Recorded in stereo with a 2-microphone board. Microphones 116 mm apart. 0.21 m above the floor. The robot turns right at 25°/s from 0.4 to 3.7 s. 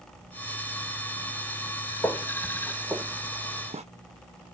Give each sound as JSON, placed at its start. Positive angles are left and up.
{"t": 2.0, "sound": "footsteps", "side_deg": 25, "distance_m": 1.3}